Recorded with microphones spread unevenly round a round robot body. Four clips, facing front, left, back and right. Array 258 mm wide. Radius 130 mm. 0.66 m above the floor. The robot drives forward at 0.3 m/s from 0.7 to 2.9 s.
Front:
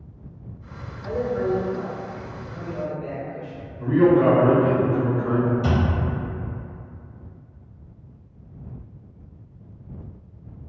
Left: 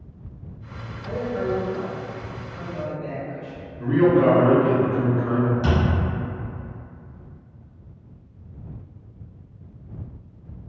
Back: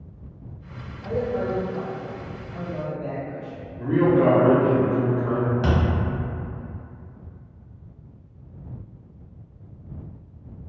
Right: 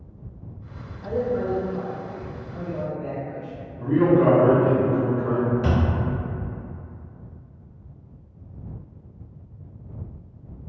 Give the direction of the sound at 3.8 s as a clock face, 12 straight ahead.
6 o'clock.